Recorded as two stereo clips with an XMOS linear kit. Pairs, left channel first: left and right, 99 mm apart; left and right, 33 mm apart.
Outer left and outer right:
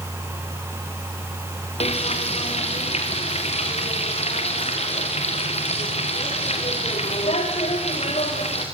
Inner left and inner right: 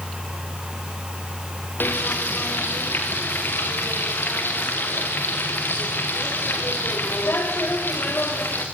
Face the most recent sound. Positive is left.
turn(degrees=85)